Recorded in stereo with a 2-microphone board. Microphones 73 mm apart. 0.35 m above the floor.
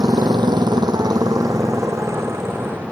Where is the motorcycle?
70° right (ahead or behind); by 2.9 s 30° right (ahead or behind).